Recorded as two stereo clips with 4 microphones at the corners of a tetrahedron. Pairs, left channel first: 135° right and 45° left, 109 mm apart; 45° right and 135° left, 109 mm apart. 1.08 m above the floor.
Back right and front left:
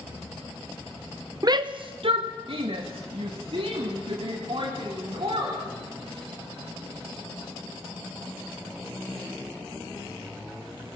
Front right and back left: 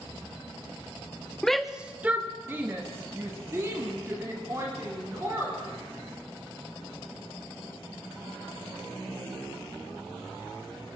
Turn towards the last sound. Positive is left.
turn(degrees=75)